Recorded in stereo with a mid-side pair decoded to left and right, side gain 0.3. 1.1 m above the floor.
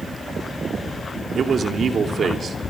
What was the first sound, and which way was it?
A man speaking, 65° right.